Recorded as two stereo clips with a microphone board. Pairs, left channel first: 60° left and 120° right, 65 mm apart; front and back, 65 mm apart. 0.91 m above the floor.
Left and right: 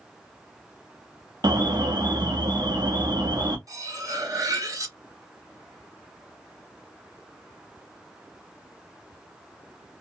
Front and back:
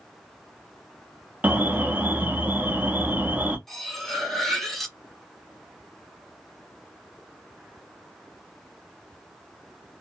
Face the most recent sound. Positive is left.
turn(degrees=-85)